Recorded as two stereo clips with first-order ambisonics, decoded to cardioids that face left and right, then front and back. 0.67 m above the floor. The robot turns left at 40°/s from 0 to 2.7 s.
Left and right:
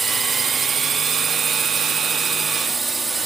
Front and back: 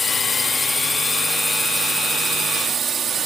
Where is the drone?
45° right; by 3.3 s 155° right.